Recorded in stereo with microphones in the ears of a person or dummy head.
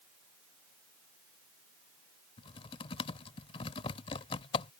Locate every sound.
2.4 s typing on a keyboard: 25° left (ahead or behind)